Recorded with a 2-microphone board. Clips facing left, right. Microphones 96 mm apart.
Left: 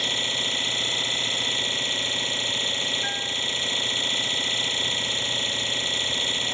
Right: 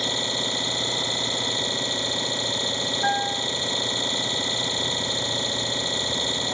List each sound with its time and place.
0.0 s an engine running: 20° right (ahead or behind)
3.0 s a piano: 55° right (ahead or behind)